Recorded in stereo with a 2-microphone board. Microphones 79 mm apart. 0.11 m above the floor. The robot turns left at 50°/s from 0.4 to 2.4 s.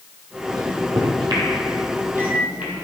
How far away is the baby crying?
No baby crying in this recording.